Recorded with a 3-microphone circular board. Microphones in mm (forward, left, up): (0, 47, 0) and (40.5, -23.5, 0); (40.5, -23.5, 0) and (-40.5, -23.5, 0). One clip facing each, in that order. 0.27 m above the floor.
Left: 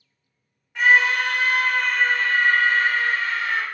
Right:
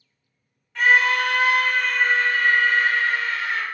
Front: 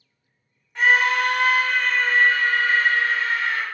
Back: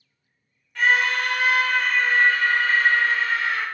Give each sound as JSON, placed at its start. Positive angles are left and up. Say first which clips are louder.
{"t": 0.8, "sound": "a scream", "louder": "even, front 2 dB", "azimuth_deg": 55, "distance_m": 1.3}